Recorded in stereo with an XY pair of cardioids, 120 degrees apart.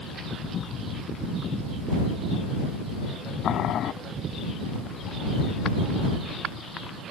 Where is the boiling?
60° left.